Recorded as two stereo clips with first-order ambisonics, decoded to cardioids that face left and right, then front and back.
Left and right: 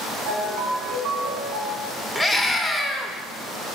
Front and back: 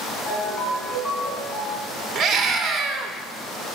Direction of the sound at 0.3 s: 70° right.